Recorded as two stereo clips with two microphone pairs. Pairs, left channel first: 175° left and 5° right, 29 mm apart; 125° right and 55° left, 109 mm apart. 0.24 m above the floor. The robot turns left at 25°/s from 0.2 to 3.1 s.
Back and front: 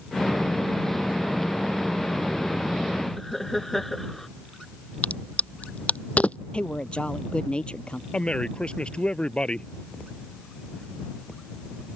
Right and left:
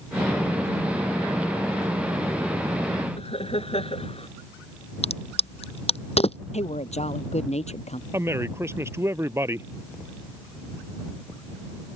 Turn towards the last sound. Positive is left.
turn(degrees=125)